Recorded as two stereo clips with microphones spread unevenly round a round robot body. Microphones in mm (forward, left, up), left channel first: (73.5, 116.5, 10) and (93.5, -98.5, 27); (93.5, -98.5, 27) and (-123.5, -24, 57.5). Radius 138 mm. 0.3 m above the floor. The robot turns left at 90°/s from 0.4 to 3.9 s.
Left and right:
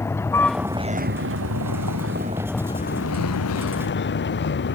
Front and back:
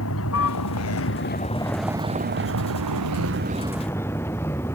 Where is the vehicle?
15° left; by 4.8 s 60° left.